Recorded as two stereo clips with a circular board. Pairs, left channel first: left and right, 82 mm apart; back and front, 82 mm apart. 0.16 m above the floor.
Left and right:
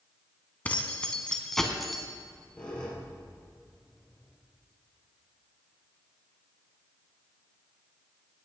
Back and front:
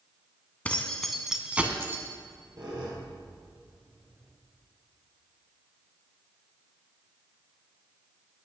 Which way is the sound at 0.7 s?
135° left.